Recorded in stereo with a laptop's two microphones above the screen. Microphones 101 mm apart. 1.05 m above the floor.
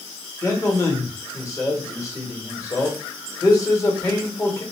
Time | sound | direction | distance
0.4 | a man speaking | 30° left (ahead or behind) | 1.2 m